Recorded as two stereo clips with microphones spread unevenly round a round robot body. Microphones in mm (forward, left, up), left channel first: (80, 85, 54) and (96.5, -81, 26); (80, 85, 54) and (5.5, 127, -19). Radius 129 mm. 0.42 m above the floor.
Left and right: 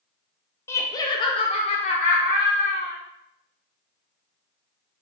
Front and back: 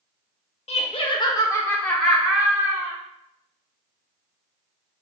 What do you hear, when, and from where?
0.7 s laughter: 15° left, 0.8 m; by 3.0 s 150° left, 1.3 m